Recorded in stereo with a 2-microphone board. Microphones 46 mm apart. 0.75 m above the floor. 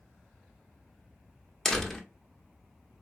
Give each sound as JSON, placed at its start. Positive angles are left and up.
{"t": 1.6, "sound": "a door slam", "side_deg": 10, "distance_m": 0.6}